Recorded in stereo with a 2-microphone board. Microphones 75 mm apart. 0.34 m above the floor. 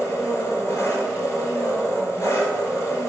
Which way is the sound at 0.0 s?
40° left (ahead or behind).